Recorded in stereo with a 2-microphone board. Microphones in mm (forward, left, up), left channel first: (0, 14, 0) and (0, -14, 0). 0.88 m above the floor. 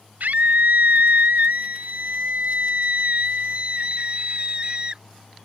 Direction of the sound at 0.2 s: 80° right.